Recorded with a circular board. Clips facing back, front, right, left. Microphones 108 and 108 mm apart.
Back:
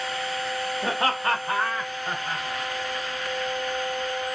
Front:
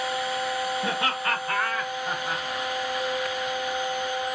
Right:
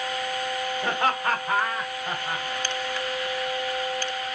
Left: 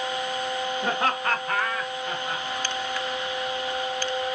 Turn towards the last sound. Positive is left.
turn(degrees=-70)